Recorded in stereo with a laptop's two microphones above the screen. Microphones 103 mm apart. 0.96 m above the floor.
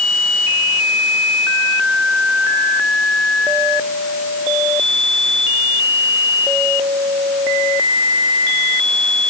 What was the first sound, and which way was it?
Only background noise.